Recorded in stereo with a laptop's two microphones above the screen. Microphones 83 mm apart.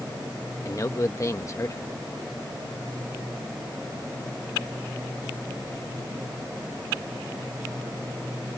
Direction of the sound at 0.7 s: 40° left (ahead or behind).